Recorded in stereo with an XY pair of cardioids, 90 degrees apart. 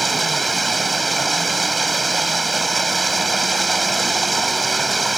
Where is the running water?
25° right.